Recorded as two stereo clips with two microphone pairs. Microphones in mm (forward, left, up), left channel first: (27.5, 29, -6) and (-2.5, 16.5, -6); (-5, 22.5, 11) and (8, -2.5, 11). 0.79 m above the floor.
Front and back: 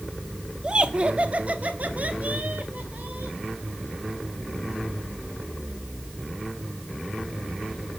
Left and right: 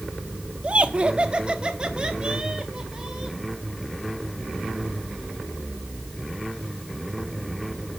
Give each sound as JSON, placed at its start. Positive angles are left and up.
{"t": 0.6, "sound": "laughter", "azimuth_deg": -100, "distance_m": 1.3}